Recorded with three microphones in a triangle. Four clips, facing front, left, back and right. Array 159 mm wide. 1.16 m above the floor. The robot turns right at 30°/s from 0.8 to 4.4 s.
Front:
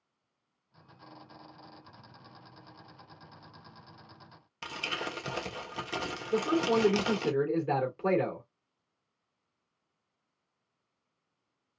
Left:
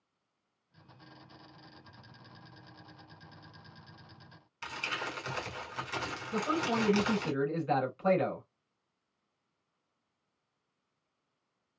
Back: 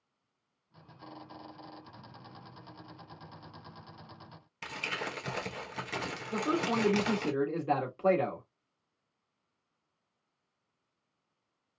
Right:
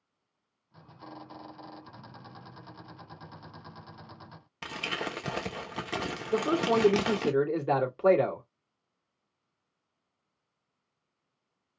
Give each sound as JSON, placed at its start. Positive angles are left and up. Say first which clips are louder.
{"t": 4.6, "sound": "crumpling", "louder": "right 3 dB, front 1 dB", "azimuth_deg": -80, "distance_m": 1.3}
{"t": 6.3, "sound": "a man speaking", "louder": "right 6 dB, front 4 dB", "azimuth_deg": -95, "distance_m": 3.0}